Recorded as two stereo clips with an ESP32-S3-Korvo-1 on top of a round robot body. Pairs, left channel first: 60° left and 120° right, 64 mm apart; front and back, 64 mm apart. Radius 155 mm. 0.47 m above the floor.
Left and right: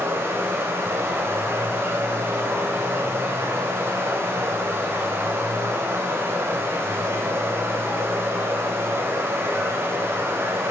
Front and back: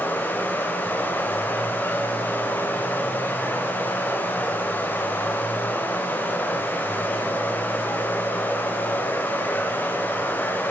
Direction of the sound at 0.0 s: 65° right.